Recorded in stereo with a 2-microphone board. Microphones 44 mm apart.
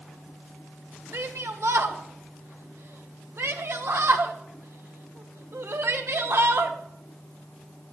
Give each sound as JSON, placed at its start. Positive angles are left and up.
{"t": 1.1, "sound": "a shout", "side_deg": -70, "distance_m": 1.9}